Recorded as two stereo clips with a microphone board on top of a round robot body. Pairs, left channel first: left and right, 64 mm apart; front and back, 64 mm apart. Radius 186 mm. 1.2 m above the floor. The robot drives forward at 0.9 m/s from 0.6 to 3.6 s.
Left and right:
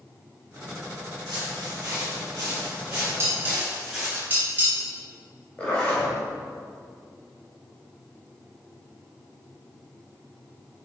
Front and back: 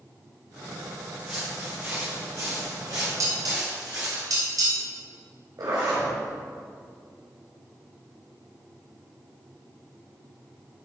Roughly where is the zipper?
Behind.